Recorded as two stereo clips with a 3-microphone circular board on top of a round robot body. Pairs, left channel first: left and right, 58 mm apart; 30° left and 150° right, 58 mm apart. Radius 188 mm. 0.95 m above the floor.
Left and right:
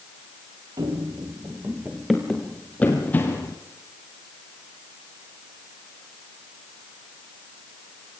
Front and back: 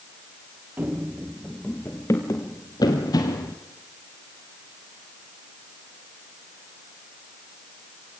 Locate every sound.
0.8 s running footsteps: 85° right, 1.2 m; by 3.6 s 35° left, 1.7 m